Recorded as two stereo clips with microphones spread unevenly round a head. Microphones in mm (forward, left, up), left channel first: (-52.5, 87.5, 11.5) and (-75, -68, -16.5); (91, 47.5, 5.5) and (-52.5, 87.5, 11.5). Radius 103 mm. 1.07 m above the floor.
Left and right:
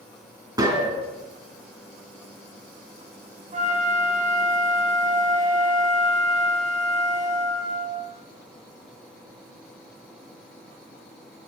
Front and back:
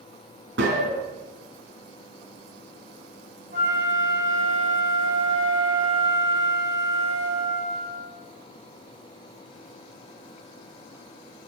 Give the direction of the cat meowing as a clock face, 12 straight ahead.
No cat meowing in this recording.